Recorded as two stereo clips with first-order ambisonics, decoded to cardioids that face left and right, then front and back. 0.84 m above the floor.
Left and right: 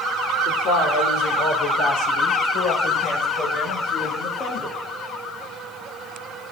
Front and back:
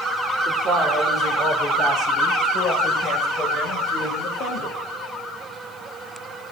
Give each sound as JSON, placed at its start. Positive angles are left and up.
{"t": 0.5, "sound": "a woman speaking", "azimuth_deg": 105, "distance_m": 3.0}